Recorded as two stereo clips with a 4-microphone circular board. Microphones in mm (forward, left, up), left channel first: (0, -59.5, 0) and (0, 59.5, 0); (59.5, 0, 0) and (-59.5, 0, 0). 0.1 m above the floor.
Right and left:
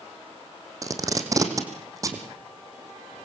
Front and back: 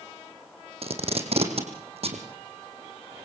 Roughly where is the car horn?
No car horn in this recording.